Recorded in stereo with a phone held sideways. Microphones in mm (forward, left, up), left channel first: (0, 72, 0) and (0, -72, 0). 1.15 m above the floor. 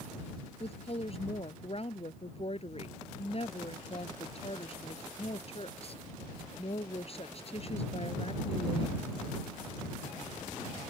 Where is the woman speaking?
45° left (ahead or behind).